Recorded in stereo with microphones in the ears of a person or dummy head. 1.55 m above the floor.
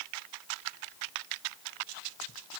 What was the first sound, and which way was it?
Only background noise.